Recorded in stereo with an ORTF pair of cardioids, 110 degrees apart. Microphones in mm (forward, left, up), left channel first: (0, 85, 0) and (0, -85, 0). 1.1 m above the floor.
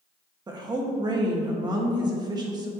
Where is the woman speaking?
25° right, 1.4 m.